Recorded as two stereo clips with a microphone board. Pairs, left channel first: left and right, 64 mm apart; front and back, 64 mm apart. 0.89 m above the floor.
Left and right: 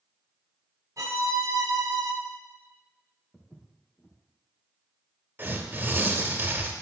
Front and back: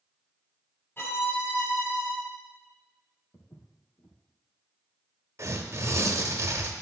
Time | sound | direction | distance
1.0 | a violin | 55° right | 1.8 m
3.3 | footsteps | 15° left | 2.5 m
5.4 | tearing paper | 145° right | 0.9 m